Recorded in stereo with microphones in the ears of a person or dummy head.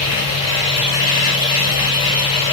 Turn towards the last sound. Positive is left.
turn(degrees=45)  # may be behind; listen again after turning